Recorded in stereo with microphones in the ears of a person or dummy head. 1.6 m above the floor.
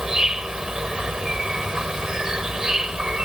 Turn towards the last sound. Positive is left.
turn(degrees=-5)  # may be behind; listen again after turning